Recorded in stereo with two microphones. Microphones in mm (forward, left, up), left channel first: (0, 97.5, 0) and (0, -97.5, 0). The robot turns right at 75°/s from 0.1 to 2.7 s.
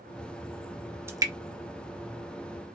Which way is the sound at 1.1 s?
15° right (ahead or behind).